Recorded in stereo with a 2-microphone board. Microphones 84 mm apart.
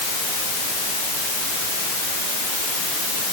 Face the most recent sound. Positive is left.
No sound to turn to.